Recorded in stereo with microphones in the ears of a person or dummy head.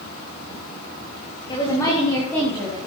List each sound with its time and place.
1.5 s a woman speaking: 25° left (ahead or behind), 2.5 m; by 2.8 s 5° left (ahead or behind), 3.5 m